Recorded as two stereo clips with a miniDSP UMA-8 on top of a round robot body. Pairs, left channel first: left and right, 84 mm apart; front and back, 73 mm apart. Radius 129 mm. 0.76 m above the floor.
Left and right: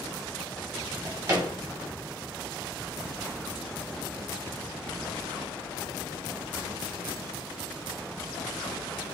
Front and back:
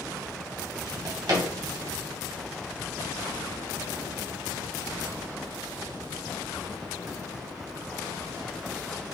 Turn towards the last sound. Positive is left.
turn(degrees=-150)